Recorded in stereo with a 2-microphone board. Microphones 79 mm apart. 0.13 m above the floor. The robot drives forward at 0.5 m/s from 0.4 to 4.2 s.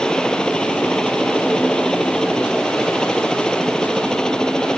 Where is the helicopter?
10° left (ahead or behind).